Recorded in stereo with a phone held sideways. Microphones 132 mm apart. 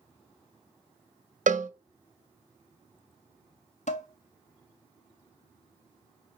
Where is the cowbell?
70° right (ahead or behind), 0.5 m.